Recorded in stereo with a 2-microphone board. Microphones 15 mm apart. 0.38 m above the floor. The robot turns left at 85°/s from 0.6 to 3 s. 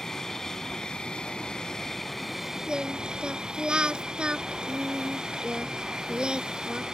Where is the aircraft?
145° left; by 7.0 s 60° right.